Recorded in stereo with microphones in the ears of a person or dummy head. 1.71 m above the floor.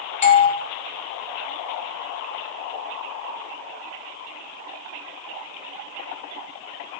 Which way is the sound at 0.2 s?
40° left (ahead or behind).